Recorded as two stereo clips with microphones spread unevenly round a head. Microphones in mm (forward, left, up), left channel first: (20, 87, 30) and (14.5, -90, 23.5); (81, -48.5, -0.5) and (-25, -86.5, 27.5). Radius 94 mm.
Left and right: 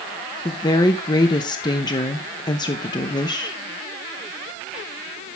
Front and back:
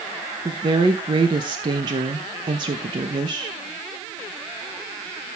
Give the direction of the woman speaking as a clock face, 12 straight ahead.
7 o'clock.